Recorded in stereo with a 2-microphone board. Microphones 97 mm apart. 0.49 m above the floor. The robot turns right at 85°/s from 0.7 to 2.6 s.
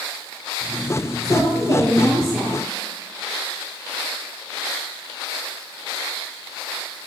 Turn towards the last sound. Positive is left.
turn(degrees=-155)